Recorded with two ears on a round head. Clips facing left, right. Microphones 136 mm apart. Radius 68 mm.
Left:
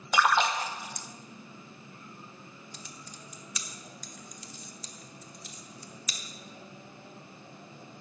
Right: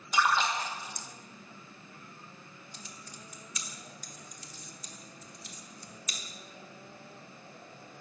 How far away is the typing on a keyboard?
About 1.1 m.